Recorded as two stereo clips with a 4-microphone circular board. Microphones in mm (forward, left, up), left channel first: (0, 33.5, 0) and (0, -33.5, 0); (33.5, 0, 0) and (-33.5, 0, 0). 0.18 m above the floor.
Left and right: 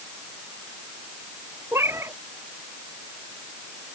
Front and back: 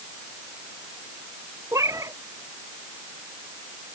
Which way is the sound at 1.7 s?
140° right.